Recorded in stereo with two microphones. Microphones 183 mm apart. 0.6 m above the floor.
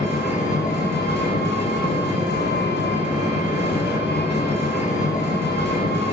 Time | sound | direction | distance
0.0 | an engine running | 65° left (ahead or behind) | 0.8 m